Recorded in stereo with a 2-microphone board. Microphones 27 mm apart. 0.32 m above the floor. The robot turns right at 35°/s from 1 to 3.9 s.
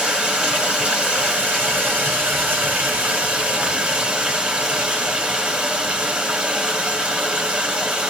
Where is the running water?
145° right, 1.8 m; by 8.1 s 45° right, 1.8 m.